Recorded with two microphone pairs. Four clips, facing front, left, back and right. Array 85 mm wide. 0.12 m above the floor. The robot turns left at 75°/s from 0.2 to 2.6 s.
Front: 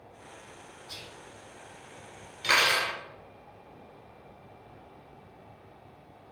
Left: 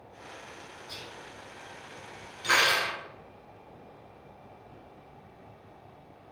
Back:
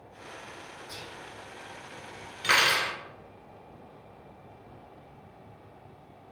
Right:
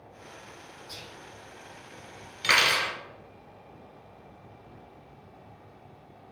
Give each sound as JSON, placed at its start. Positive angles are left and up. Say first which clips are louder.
{"t": 0.9, "sound": "whispering", "louder": "left 1 dB, back 2 dB", "azimuth_deg": 20, "distance_m": 1.1}
{"t": 2.4, "sound": "cutlery clinking", "louder": "even, back 1 dB", "azimuth_deg": -100, "distance_m": 1.1}